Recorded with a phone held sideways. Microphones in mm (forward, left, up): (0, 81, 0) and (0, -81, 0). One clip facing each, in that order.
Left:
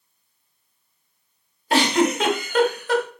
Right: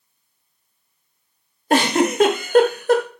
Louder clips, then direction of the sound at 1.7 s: Right 2 dB; 45° right (ahead or behind).